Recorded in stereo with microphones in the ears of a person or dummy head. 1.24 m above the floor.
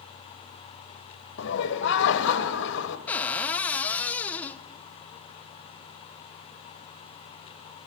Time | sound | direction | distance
1.4 | laughter | 60° left (ahead or behind) | 1.1 m
3.1 | a cupboard door | 10° left (ahead or behind) | 0.6 m